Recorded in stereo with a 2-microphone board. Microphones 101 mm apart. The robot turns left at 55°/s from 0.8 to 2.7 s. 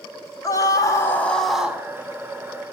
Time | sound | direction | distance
0.4 | a scream | 40° left | 1.7 m